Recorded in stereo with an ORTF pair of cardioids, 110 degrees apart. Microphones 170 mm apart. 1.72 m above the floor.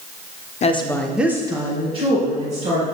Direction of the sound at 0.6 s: 45° left.